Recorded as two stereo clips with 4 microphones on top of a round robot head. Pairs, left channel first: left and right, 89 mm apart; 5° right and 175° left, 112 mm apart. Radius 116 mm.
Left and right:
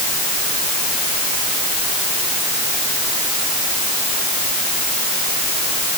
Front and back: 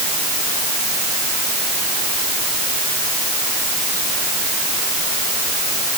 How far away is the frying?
I don't hear frying.